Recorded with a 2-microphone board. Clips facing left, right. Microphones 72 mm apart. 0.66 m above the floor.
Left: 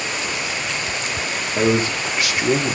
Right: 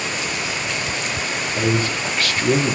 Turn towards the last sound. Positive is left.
turn(degrees=0)  # may be behind; listen again after turning